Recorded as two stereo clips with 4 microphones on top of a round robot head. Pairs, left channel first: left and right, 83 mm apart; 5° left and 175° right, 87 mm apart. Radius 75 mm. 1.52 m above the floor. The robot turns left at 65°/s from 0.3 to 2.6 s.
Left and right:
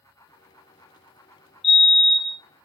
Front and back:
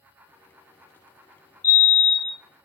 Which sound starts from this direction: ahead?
A fire alarm, at 1.6 s.